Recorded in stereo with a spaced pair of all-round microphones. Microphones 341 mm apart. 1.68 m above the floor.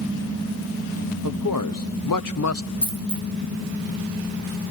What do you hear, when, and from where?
1.2 s a man speaking: 55° left (ahead or behind), 1.0 m; by 2.7 s 35° left (ahead or behind), 0.6 m
2.8 s a dropped coin: 30° right (ahead or behind), 2.5 m